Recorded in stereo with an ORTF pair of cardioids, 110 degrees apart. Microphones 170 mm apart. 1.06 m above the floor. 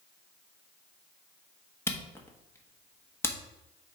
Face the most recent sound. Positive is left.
turn(degrees=15)